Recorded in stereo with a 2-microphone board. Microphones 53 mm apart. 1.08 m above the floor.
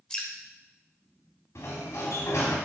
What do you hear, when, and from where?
0.1 s dripping: 20° left (ahead or behind), 1.8 m
1.6 s a sliding door: 70° left (ahead or behind), 2.5 m